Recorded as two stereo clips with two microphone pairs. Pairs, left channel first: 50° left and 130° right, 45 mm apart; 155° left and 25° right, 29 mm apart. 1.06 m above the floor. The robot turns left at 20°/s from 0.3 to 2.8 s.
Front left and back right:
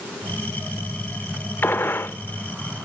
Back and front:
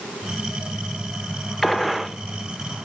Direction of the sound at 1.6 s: 65° left.